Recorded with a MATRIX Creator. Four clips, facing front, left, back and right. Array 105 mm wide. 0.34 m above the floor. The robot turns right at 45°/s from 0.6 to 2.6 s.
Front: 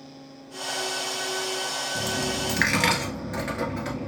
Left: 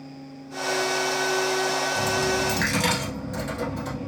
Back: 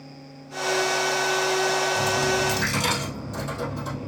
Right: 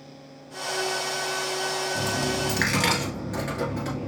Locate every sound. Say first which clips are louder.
1.9 s a dropped coin: left 3 dB, back 6 dB; 45° right, 1.1 m; by 4.1 s 15° right, 1.1 m